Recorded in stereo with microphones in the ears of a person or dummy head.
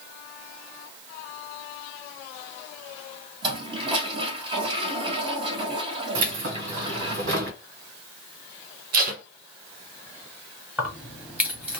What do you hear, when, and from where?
3.4 s a toilet flushing: 25° right (ahead or behind), 1.4 m
6.2 s keys jangling: 70° right (ahead or behind), 1.7 m
8.9 s tape being pulled: 45° right (ahead or behind), 0.7 m
10.8 s keys jangling: 10° right (ahead or behind), 1.1 m